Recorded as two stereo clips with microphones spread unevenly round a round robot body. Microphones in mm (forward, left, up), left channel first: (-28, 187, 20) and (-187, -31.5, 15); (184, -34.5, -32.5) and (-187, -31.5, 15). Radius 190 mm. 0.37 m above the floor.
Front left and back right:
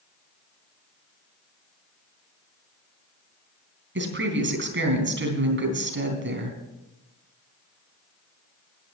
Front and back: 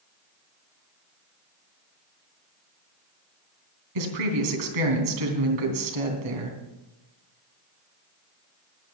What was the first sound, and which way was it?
A woman speaking, 170° right.